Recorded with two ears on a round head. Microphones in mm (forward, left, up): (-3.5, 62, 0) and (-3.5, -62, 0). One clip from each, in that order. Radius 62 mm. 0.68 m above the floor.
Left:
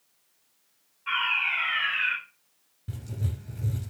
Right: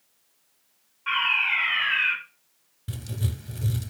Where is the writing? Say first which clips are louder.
Right 4 dB; 65° right (ahead or behind), 1.7 m.